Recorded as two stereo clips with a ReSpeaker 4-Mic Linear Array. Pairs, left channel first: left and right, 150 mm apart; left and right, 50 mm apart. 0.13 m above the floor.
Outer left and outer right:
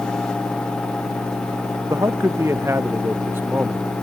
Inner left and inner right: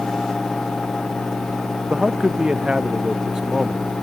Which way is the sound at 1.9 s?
20° right (ahead or behind).